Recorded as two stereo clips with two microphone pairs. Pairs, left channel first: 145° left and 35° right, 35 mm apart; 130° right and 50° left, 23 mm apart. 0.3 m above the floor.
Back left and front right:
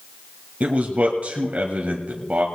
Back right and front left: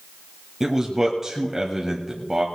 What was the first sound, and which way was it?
A man speaking, 15° right.